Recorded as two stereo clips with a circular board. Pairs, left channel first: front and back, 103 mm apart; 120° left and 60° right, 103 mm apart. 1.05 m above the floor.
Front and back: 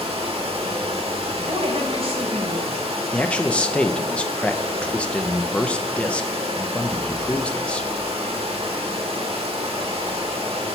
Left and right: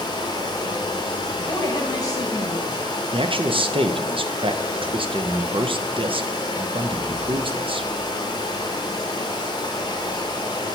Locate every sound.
0.0 s running water: 165° left, 0.9 m
1.4 s a woman speaking: 170° left, 1.5 m
3.1 s a man speaking: 75° right, 0.5 m